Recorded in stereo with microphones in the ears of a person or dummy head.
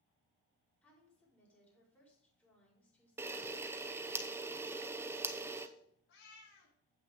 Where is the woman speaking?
5° left (ahead or behind), 4.5 m.